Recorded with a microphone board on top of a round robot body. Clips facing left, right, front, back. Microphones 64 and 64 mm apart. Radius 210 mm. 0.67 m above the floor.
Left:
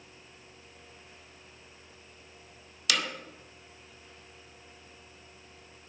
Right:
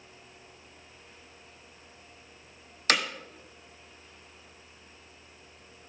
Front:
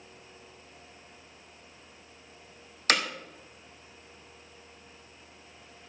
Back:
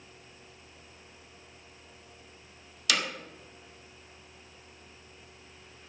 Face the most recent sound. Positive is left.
turn(degrees=-40)